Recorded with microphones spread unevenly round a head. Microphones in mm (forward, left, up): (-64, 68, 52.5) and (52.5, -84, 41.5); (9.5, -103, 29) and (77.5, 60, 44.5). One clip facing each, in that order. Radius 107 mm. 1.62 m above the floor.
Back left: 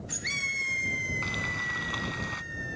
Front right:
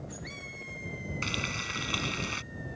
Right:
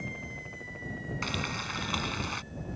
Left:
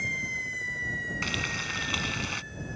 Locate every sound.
1.2 s frying: 5° left